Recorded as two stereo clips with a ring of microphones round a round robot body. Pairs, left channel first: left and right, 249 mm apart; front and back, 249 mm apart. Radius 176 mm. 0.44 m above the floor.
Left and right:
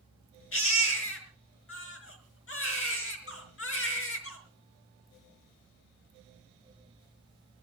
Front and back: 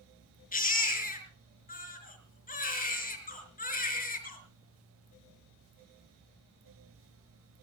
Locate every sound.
0.5 s a baby crying: 55° left, 4.5 m